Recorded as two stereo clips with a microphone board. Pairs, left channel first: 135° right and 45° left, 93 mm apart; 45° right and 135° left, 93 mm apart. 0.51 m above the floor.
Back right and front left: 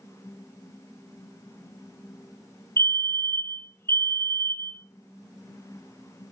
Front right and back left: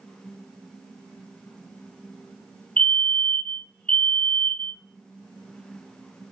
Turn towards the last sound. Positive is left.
turn(degrees=-110)